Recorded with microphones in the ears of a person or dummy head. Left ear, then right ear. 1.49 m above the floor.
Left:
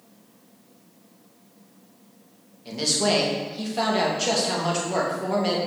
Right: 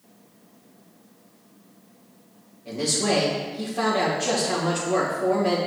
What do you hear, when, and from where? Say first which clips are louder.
2.6 s a man speaking: left 1 dB; 45° left (ahead or behind), 2.5 m